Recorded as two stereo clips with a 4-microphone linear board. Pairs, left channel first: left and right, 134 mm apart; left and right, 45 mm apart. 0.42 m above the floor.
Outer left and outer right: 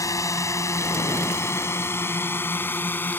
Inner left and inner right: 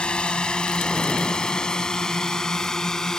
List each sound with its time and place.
0.0 s a drone: 25° left (ahead or behind); by 3.2 s 15° left (ahead or behind)